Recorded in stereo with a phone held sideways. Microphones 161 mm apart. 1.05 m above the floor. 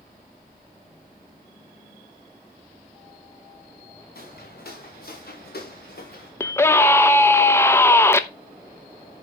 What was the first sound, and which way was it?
Footsteps, 70° left (ahead or behind).